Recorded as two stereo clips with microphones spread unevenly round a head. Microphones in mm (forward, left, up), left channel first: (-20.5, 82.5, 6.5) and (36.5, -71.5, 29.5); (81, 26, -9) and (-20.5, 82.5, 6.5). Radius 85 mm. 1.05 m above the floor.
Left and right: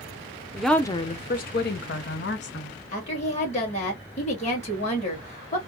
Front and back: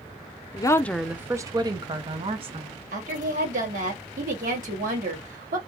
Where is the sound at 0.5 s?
15° left, 0.7 m; by 2.7 s 110° left, 1.8 m.